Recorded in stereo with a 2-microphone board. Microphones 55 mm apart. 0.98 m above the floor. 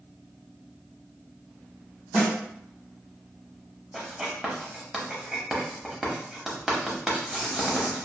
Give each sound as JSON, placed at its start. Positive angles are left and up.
{"t": 2.1, "sound": "a snare drum", "side_deg": -10, "distance_m": 1.9}
{"t": 3.9, "sound": "writing", "side_deg": -5, "distance_m": 0.8}